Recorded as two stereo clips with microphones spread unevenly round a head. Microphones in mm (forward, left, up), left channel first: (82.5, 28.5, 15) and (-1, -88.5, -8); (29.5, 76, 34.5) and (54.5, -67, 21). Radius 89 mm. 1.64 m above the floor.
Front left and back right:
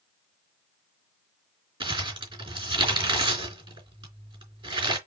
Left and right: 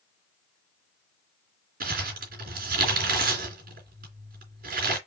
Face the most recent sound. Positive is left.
turn(degrees=-70)